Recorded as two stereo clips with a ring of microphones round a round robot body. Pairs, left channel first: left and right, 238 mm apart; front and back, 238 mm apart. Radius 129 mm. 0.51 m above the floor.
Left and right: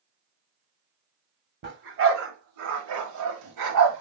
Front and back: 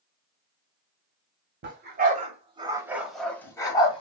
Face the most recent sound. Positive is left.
turn(degrees=-70)